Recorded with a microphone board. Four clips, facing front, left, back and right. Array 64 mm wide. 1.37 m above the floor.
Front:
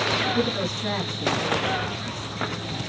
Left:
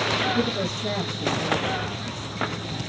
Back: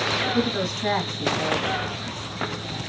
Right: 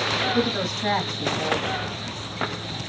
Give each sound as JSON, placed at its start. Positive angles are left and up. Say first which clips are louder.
{"t": 0.3, "sound": "a woman speaking", "louder": "right 1 dB, back 1 dB", "azimuth_deg": -125, "distance_m": 2.0}